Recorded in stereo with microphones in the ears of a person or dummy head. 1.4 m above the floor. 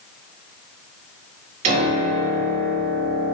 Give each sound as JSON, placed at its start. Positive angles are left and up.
{"t": 1.6, "sound": "a piano", "side_deg": -45, "distance_m": 2.0}